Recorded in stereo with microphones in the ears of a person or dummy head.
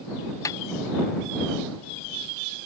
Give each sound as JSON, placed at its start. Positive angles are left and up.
{"t": 0.5, "sound": "a snare drum", "side_deg": 10}